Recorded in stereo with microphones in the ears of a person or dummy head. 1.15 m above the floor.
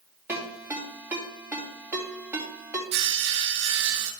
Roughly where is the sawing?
Right.